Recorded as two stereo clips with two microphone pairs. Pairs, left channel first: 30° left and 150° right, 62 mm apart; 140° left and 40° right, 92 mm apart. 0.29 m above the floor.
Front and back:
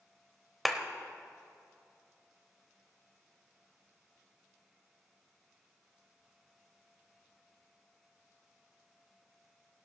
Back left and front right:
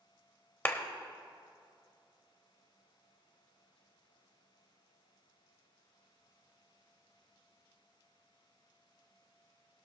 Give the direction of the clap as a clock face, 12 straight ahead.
8 o'clock.